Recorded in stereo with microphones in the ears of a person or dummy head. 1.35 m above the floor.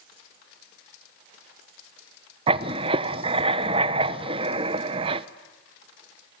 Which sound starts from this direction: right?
Writing, at 2.5 s.